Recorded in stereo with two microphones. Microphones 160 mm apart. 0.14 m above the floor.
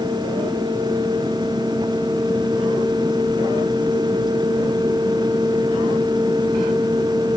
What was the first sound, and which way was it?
Only background noise.